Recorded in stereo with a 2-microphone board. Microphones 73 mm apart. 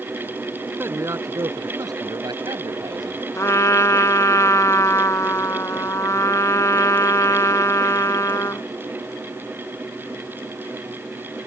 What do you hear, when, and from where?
0.8 s a man speaking: 35° right (ahead or behind); by 3.2 s 70° right (ahead or behind)
3.4 s a trumpet: 45° left (ahead or behind)